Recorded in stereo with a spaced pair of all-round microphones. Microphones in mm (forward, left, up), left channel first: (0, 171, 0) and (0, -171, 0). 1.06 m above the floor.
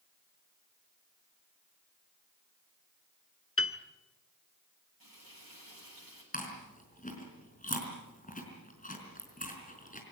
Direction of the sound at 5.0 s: 85° right.